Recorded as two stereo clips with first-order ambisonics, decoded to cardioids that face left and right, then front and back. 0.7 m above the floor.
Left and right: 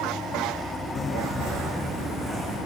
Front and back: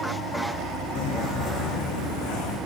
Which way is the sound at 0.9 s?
25° left.